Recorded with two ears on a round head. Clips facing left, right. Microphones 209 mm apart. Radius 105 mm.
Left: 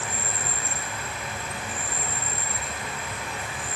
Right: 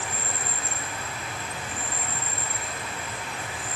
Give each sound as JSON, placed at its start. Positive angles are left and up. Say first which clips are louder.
{"t": 0.0, "sound": "an insect", "louder": "left 1 dB", "side_deg": 55, "distance_m": 0.7}